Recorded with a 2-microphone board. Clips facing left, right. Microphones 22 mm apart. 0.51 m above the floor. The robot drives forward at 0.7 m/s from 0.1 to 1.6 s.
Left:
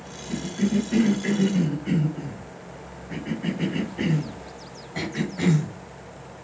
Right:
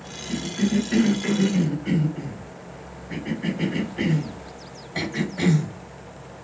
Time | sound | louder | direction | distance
0.3 | a cough | right 1 dB | 40° right (ahead or behind) | 2.5 m